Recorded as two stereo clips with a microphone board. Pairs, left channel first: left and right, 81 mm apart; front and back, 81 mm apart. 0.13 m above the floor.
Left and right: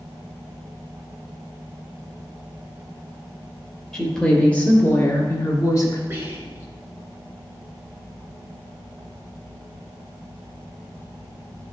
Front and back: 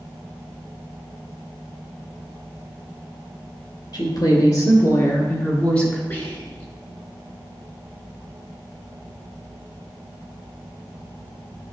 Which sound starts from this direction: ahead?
A woman speaking, at 3.9 s.